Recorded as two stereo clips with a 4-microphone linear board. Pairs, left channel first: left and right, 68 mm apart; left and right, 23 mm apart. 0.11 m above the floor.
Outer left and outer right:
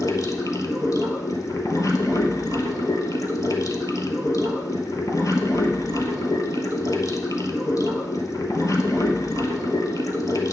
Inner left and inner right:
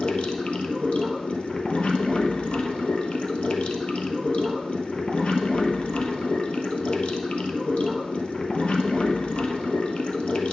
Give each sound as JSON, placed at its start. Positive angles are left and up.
{"t": 0.0, "sound": "running water", "side_deg": 55, "distance_m": 1.0}